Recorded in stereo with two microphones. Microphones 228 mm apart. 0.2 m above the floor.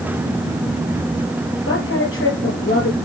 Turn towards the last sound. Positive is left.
turn(degrees=70)  # may be behind; listen again after turning